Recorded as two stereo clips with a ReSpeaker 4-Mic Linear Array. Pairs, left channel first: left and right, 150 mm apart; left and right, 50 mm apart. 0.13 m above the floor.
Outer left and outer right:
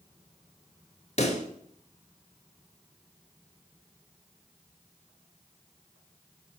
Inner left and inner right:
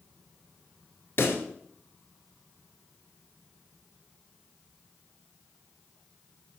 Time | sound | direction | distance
1.2 | a pop | 50° left (ahead or behind) | 1.1 m